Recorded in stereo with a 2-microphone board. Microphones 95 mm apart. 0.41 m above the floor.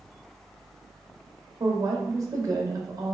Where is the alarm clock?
No alarm clock in this recording.